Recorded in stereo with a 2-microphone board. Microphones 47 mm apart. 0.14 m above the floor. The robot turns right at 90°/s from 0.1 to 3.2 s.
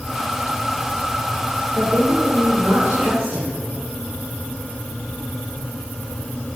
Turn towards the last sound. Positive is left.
turn(degrees=-35)